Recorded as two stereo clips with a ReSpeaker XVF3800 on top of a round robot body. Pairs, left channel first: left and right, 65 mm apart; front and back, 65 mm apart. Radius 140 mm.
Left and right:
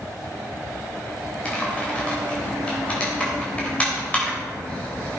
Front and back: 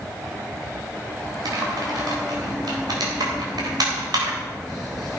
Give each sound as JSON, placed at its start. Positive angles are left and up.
{"t": 1.4, "sound": "typing on a keyboard", "azimuth_deg": 165, "distance_m": 3.5}